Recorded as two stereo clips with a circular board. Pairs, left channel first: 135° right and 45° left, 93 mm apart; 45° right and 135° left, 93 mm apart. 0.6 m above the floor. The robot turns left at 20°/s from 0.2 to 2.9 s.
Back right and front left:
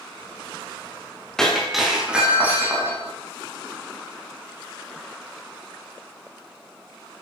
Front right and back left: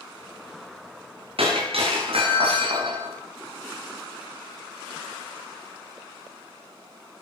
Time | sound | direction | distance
1.4 | breaking glass | 140° left | 9.5 m